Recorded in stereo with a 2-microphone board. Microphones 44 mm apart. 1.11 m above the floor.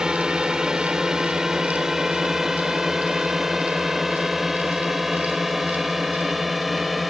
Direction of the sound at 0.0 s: 15° right (ahead or behind).